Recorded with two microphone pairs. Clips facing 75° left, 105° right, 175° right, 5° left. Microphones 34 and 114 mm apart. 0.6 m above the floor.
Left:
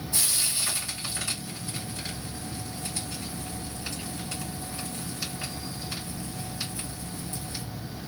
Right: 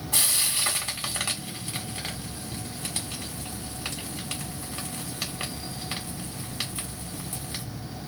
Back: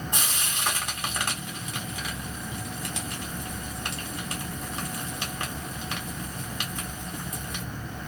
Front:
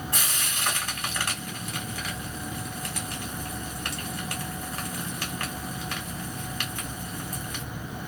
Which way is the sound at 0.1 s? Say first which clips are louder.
Right 3 dB, even; 105° right.